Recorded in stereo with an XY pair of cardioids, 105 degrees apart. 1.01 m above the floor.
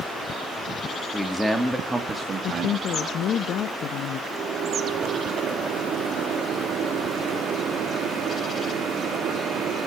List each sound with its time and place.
1.1 s a man speaking: 10° left, 1.8 m; by 3.4 s 65° right, 2 m
2.4 s a woman speaking: 65° left, 0.6 m
4.3 s a microwave: 55° right, 1.6 m